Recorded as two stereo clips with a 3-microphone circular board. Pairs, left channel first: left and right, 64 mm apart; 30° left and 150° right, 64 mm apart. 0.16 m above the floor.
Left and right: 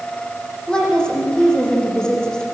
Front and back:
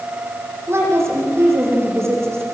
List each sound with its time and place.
0.7 s a woman speaking: 165° left, 7.5 m